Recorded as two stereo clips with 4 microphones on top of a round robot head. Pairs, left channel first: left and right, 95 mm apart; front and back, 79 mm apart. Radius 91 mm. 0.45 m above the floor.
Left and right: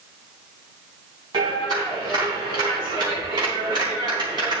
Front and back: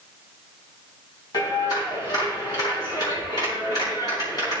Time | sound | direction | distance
1.3 | a clap | 40° right | 3.5 m